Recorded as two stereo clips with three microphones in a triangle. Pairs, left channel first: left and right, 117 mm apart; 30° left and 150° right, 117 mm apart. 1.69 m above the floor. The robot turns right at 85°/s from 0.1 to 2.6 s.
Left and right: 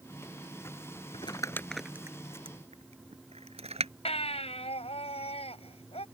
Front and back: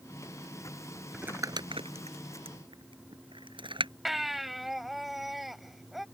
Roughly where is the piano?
I don't hear a piano.